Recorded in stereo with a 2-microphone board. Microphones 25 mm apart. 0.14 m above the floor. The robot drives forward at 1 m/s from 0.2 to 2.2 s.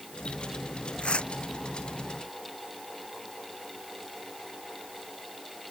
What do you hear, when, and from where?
1.0 s tearing paper: 50° left (ahead or behind); by 1.3 s 45° left (ahead or behind)